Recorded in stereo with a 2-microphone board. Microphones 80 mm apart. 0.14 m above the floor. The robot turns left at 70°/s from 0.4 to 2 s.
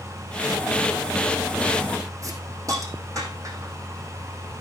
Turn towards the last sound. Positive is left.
turn(degrees=-40)  # may be behind; listen again after turning